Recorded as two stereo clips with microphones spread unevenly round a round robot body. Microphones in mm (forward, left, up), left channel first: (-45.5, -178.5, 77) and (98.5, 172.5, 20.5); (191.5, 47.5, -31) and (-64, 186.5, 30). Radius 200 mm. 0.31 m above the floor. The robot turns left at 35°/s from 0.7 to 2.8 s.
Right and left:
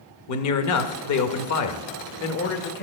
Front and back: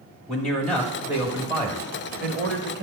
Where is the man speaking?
95° right, 1.1 m; by 2.8 s 170° right, 1.1 m.